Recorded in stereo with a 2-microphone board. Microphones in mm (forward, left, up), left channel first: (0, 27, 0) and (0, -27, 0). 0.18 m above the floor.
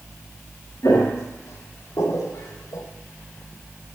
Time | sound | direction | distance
0.8 | footsteps | 55° left (ahead or behind) | 2.5 m